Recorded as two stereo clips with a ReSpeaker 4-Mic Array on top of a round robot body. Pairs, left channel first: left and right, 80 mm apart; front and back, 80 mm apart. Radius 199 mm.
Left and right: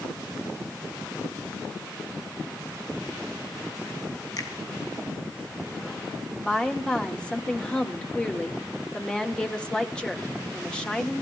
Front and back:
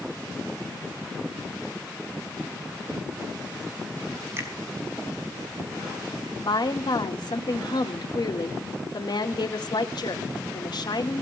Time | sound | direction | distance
4.4 | a finger snap | 125° left | 4.5 m
6.4 | a woman speaking | 15° left | 3 m